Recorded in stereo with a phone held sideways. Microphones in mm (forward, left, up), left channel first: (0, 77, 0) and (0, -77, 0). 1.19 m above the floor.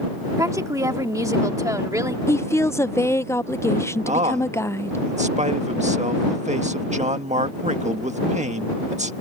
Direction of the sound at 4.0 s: 50° right (ahead or behind).